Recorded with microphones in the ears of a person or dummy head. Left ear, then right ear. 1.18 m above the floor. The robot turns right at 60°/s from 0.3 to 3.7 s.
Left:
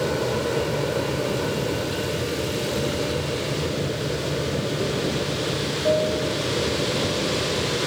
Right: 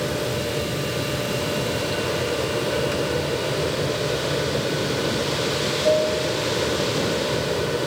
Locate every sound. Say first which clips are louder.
0.0 s an aircraft: left 1 dB; 100° left; by 7.9 s 55° right